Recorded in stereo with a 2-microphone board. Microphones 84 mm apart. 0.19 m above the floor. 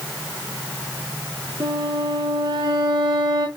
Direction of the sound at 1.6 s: 55° right (ahead or behind).